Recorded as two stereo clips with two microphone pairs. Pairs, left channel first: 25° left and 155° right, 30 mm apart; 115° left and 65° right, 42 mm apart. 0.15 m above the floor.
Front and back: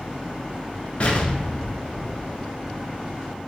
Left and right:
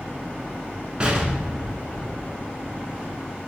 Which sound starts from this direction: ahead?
An explosion, at 1.0 s.